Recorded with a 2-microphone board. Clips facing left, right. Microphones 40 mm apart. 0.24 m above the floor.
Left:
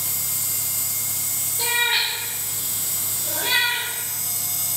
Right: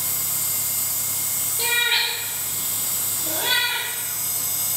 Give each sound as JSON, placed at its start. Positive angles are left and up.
{"t": 1.6, "sound": "a cat meowing", "side_deg": -25, "distance_m": 0.8}